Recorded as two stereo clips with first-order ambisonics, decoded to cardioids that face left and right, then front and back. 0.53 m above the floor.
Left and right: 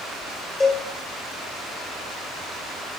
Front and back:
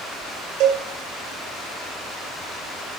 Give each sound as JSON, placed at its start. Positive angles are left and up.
{"t": 0.6, "sound": "a cowbell", "azimuth_deg": 165, "distance_m": 2.0}